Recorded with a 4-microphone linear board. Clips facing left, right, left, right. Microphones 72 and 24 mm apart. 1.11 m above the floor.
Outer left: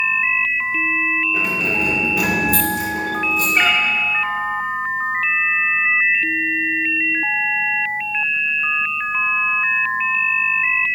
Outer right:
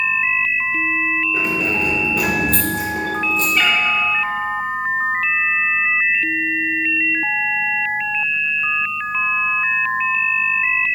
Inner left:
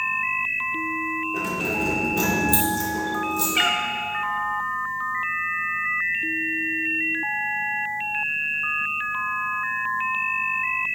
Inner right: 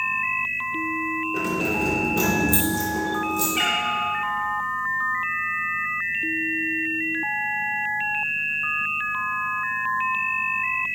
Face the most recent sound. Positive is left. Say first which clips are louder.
# outer left 1 dB, inner left 2 dB
turn(degrees=40)  # may be behind; listen again after turning